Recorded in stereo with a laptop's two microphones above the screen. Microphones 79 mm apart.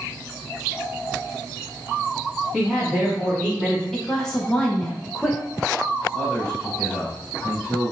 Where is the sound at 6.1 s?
15° right (ahead or behind), 2 m.